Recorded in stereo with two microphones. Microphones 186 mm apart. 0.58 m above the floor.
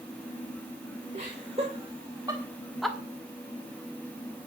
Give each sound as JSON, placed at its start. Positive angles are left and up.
{"t": 1.1, "sound": "laughter", "side_deg": -40, "distance_m": 2.5}